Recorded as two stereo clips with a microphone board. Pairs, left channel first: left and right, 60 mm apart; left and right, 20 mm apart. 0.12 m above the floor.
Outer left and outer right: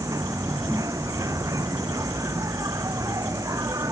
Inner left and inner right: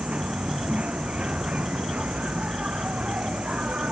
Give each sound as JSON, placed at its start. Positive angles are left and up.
{"t": 0.0, "sound": "an insect", "side_deg": -75}